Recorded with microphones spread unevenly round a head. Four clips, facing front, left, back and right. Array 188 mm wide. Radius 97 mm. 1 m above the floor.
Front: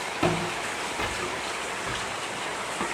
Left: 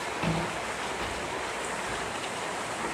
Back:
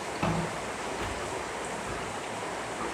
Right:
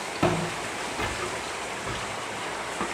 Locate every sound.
0.2 s footsteps: 80° right, 5 m; by 2.9 s 60° right, 5.5 m